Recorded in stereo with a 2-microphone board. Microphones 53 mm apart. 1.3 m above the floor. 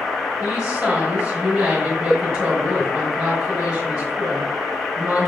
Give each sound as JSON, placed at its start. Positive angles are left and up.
{"t": 0.4, "sound": "a woman speaking", "side_deg": -25, "distance_m": 1.4}